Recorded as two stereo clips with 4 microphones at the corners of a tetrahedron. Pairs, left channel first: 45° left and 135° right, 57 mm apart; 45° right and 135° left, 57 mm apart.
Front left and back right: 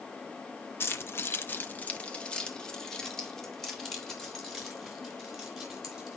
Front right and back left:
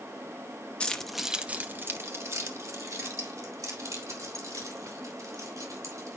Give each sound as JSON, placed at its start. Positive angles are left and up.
{"t": 0.8, "sound": "keys jangling", "azimuth_deg": 20, "distance_m": 0.9}